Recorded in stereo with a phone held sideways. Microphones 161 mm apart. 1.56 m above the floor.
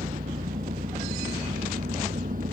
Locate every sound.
0.0 s an engine running: 60° right (ahead or behind)